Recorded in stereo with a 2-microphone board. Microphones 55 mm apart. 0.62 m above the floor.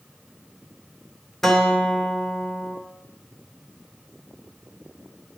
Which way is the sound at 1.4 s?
10° left (ahead or behind).